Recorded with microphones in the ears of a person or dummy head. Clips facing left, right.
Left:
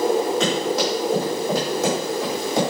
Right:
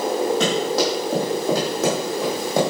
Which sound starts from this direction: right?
Running footsteps, at 0.4 s.